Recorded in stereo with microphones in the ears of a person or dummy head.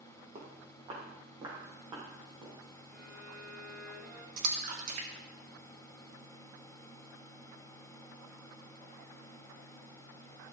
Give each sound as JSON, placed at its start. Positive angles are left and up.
{"t": 0.3, "sound": "footsteps", "side_deg": -35, "distance_m": 2.5}
{"t": 2.9, "sound": "a violin", "side_deg": -5, "distance_m": 4.0}
{"t": 4.4, "sound": "a splash", "side_deg": -50, "distance_m": 1.4}